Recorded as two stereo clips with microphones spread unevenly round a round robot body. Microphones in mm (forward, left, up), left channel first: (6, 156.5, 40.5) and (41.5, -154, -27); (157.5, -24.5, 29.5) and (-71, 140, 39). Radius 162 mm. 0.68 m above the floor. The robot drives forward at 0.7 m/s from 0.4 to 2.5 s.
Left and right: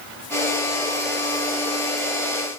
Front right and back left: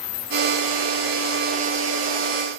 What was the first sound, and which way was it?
Only background noise.